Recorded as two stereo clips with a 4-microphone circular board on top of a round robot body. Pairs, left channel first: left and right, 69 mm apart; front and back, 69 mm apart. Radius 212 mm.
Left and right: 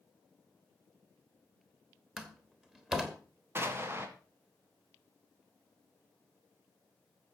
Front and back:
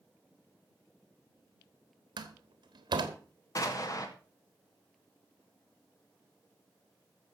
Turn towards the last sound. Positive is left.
turn(degrees=-35)